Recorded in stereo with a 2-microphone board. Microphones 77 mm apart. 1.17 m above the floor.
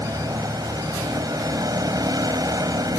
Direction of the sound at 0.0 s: 60° right (ahead or behind).